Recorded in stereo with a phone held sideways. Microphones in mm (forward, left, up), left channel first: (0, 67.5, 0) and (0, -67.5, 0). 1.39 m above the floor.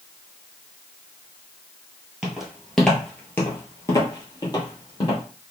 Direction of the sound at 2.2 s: 5° right (ahead or behind).